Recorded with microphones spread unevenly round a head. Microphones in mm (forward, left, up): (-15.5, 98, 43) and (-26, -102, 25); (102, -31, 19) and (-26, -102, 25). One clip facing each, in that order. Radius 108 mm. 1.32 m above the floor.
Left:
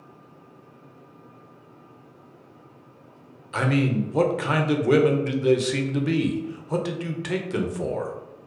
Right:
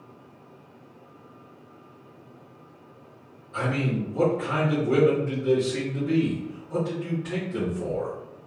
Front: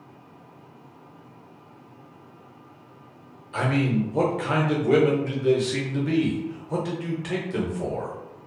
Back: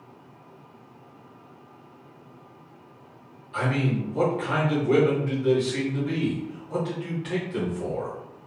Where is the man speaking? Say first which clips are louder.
Left 4 dB, front 3 dB; 85° left, 0.5 m.